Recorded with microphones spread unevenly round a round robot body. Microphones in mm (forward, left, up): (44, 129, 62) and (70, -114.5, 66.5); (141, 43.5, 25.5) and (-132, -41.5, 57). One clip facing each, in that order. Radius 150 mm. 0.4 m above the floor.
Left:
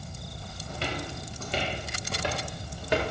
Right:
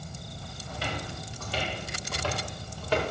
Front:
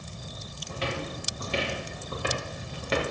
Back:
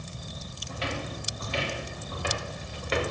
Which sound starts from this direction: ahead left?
Footsteps, at 0.7 s.